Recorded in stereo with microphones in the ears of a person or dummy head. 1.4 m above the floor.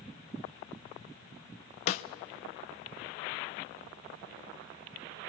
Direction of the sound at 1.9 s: 40° left (ahead or behind).